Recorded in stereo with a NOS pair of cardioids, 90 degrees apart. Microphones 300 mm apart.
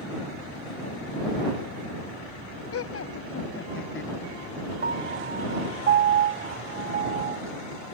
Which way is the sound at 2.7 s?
50° left.